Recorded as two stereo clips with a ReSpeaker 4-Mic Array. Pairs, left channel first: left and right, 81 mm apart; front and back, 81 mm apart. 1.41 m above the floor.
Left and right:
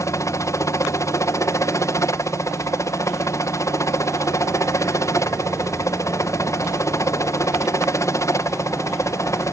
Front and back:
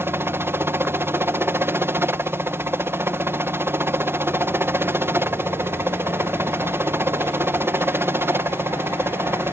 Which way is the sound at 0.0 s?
130° left.